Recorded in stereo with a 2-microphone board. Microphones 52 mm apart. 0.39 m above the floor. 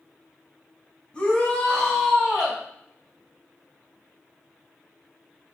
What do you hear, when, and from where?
1.1 s a shout: 20° left (ahead or behind), 3.5 m; by 2.6 s 15° right (ahead or behind), 3.5 m